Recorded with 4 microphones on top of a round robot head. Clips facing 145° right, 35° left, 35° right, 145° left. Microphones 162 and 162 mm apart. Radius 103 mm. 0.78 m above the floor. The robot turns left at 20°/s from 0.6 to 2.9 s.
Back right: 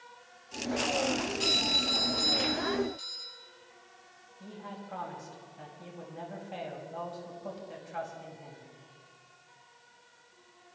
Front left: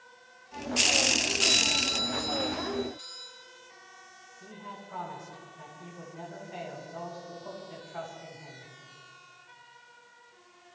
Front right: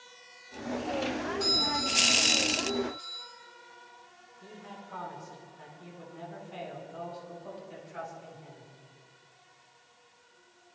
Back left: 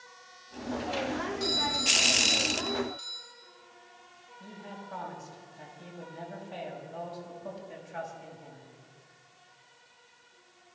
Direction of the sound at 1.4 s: 125° right.